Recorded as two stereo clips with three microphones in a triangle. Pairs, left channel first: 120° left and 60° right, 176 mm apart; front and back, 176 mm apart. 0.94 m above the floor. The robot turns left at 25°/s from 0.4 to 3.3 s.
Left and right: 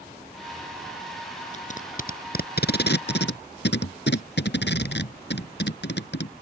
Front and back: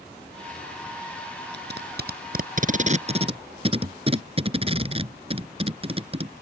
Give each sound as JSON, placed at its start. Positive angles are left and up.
{"t": 1.5, "sound": "tape being pulled", "azimuth_deg": 165}